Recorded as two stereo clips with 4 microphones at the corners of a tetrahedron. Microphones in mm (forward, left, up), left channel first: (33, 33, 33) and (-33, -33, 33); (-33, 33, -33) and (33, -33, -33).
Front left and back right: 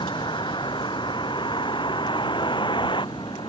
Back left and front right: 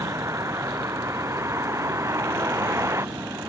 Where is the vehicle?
10° left; by 3.5 s 15° left.